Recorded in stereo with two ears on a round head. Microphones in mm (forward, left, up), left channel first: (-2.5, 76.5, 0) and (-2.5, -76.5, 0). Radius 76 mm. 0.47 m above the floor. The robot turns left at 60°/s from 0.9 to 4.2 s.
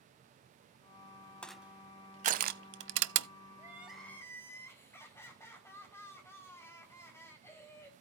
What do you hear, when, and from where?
1.4 s crushing: 5° left (ahead or behind), 0.6 m; by 3.3 s 70° right (ahead or behind), 0.6 m
3.6 s crying: 160° right, 3 m; by 7.9 s 165° left, 3 m